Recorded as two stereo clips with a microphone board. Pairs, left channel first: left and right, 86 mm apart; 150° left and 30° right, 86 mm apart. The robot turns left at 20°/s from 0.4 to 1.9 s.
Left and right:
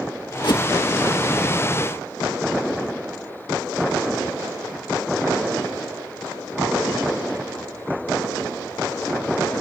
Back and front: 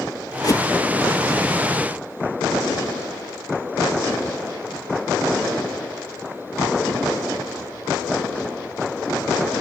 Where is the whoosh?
110° left; by 0.7 s 105° left.